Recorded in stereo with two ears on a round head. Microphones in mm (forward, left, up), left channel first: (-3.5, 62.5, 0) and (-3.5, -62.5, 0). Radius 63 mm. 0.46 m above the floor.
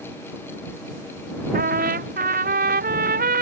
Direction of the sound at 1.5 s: 65° right (ahead or behind).